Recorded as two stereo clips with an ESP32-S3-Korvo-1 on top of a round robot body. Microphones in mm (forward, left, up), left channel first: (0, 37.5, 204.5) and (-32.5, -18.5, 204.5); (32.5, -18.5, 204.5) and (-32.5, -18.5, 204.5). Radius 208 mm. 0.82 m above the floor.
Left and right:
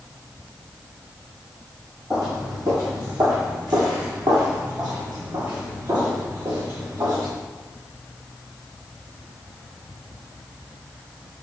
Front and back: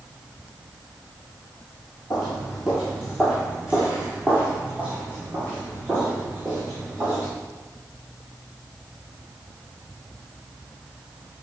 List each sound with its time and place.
2.1 s footsteps: 65° right, 0.9 m; by 7.3 s 120° right, 3.5 m